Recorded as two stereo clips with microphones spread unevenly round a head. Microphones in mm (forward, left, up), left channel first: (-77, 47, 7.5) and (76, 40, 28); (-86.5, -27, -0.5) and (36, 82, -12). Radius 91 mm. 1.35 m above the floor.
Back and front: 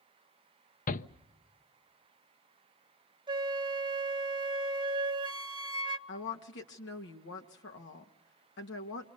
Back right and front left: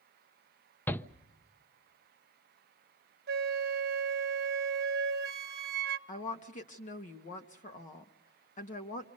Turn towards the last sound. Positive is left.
turn(degrees=180)